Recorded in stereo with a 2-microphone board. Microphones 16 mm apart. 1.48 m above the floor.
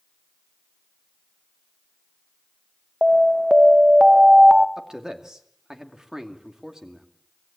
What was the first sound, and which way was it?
An alarm, 35° right (ahead or behind).